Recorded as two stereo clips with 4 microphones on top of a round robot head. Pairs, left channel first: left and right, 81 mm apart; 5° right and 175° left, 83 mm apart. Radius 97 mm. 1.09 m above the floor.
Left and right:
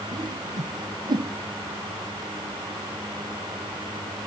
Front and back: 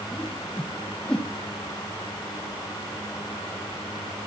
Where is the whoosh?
85° right, 1.3 m.